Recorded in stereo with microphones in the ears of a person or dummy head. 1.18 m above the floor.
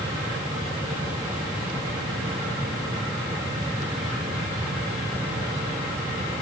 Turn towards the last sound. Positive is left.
No sound to turn to.